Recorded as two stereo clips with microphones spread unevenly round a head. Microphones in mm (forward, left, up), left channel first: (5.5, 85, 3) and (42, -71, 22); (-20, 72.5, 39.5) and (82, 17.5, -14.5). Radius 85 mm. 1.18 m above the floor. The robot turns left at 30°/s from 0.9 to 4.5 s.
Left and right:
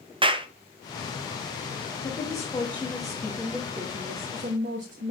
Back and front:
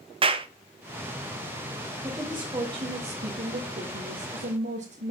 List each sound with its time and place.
0.2 s a clap: 20° right, 0.9 m
2.0 s a woman speaking: 40° left, 1.7 m; by 5.1 s 35° right, 1.7 m